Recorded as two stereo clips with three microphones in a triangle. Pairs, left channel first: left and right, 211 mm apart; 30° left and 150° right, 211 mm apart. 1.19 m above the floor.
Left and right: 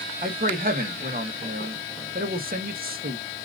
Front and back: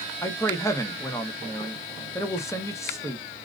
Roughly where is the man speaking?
Ahead right.